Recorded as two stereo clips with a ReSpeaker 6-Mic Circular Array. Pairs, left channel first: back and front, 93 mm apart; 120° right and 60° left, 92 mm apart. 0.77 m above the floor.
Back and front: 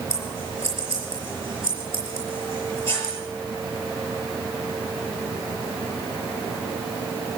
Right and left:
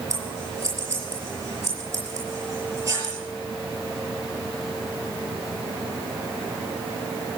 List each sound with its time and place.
0.1 s scissors: 120° left, 5.5 m